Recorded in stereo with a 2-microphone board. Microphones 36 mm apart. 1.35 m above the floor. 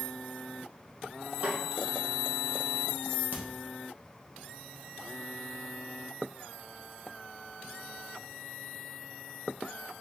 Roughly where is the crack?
Right.